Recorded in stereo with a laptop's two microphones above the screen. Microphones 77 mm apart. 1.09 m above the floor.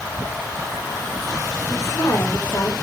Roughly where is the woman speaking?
Left.